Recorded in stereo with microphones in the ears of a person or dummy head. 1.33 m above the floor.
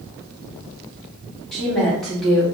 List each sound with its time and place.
1.5 s a woman speaking: centre (ahead or behind), 1.6 m